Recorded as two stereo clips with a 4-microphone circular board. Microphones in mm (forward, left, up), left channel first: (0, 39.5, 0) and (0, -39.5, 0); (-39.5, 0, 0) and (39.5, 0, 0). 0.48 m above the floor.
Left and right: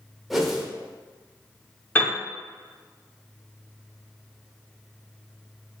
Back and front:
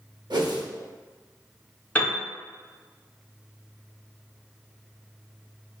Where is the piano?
130° left, 1.0 m.